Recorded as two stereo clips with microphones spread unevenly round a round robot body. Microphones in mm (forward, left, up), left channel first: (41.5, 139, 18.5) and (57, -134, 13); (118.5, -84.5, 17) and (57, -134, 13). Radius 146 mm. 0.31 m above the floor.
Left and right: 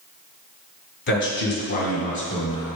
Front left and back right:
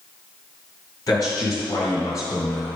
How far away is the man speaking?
About 2 m.